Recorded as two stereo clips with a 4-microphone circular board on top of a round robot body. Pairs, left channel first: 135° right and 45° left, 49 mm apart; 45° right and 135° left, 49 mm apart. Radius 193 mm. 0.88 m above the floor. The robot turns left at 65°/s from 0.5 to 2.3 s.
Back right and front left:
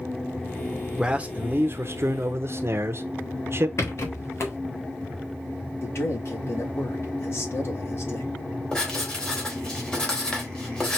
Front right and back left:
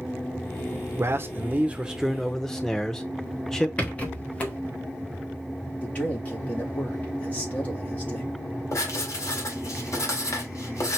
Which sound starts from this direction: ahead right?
Writing, at 8.7 s.